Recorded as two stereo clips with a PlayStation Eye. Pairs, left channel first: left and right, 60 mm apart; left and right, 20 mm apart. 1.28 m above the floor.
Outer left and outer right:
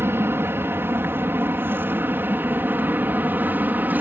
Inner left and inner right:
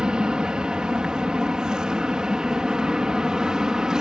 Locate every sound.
0.0 s an aircraft: 40° right (ahead or behind); by 4.0 s 30° right (ahead or behind)